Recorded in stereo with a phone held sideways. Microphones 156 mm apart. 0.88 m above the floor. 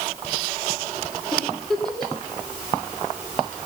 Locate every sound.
1.3 s a giggle: 5° left (ahead or behind), 3.5 m